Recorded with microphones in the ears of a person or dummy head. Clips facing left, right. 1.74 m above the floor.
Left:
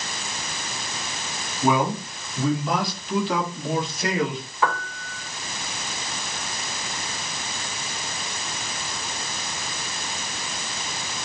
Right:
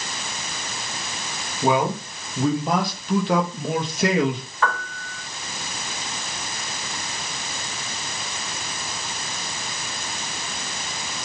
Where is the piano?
15° left (ahead or behind), 1.5 m.